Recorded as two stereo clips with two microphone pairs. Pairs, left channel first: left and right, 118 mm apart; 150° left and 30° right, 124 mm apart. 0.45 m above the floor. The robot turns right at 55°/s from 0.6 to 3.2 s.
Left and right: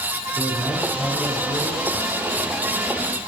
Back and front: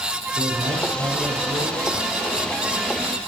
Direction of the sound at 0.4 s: 5° right.